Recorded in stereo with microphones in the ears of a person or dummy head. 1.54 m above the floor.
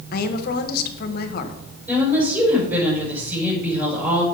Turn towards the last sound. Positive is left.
turn(degrees=-10)  # may be behind; listen again after turning